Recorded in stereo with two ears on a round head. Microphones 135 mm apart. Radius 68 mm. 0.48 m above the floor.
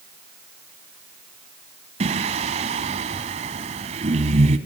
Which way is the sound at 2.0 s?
45° right (ahead or behind).